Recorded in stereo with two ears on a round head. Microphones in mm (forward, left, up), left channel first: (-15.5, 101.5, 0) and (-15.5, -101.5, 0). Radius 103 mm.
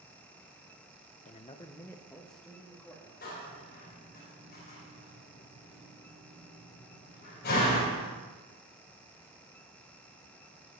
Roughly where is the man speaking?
Left.